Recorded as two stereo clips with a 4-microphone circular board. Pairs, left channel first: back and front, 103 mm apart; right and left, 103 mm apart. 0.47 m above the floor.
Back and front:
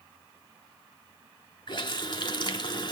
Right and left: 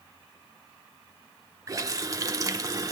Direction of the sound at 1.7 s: 145° left.